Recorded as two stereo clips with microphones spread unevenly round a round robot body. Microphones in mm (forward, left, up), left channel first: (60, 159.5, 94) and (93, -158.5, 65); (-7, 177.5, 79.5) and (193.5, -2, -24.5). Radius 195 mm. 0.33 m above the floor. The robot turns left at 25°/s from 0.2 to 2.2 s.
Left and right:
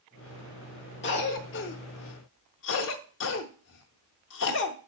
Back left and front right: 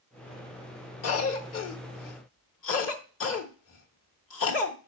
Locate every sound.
1.0 s a cough: 125° left, 1.0 m; by 4.8 s 95° left, 1.0 m